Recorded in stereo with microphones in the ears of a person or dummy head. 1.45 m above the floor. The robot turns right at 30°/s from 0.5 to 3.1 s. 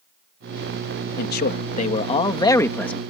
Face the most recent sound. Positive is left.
turn(degrees=180)